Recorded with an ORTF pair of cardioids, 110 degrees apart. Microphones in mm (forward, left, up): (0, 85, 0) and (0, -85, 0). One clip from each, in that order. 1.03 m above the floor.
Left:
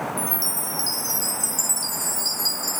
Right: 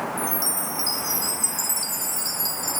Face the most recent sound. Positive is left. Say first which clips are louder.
# right 1 dB
turn(degrees=20)